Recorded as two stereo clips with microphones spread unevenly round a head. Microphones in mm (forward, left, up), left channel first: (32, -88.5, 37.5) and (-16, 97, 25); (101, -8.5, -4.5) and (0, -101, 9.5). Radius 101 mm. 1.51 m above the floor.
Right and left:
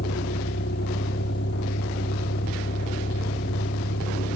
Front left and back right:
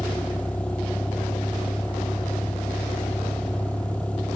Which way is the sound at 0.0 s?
40° right.